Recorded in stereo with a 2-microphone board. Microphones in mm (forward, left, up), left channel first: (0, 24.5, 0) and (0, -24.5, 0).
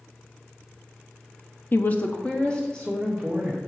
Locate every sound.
1.7 s a woman speaking: 45° left (ahead or behind), 0.6 m; by 3.6 s 15° left (ahead or behind), 2.5 m